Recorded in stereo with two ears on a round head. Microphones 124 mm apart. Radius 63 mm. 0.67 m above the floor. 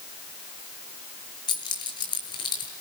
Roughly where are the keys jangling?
Left.